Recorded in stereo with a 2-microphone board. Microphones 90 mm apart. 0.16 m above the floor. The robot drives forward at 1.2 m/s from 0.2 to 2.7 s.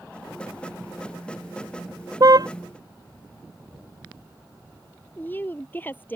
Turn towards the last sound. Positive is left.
turn(degrees=25)  # may be behind; listen again after turning